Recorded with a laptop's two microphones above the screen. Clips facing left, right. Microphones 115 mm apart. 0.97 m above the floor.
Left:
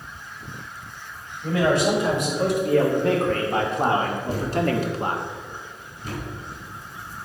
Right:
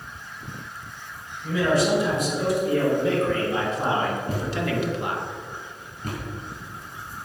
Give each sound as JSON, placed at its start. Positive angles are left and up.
{"t": 1.4, "sound": "a man speaking", "side_deg": 70, "distance_m": 4.5}
{"t": 4.3, "sound": "a thud", "side_deg": -55, "distance_m": 4.5}